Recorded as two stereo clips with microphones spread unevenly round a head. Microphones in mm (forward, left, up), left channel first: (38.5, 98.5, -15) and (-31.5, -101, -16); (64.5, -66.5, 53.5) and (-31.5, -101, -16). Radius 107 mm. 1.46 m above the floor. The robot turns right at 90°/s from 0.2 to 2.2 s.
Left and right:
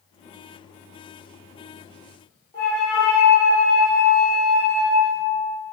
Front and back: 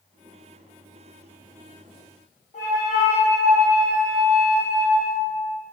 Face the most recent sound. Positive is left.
turn(degrees=5)